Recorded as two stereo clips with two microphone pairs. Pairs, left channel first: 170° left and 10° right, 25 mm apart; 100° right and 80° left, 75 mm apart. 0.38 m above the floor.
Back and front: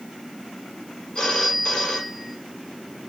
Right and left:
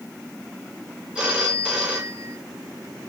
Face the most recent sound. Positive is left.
turn(degrees=155)